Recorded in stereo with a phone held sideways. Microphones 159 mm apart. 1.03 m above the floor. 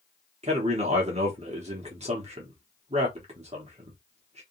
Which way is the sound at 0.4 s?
45° right (ahead or behind).